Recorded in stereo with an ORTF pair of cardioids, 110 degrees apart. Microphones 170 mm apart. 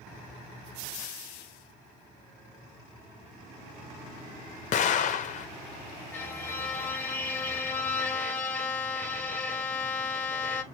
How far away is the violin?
About 1.0 m.